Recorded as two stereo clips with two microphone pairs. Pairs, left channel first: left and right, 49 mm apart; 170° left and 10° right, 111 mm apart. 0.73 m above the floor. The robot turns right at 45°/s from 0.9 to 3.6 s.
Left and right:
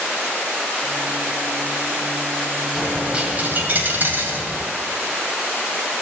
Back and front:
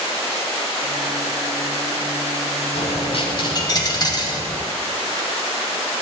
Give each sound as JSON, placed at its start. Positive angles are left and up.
{"t": 2.8, "sound": "a dropped coin", "azimuth_deg": -175, "distance_m": 1.9}